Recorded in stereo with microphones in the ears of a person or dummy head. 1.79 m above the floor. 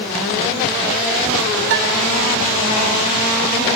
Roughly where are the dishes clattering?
Right.